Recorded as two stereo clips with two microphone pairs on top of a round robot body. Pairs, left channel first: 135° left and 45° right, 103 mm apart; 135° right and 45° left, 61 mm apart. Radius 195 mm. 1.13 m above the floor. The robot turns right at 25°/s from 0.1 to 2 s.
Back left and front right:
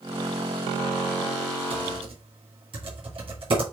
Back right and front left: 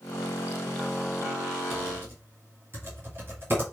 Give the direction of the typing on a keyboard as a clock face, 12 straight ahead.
1 o'clock.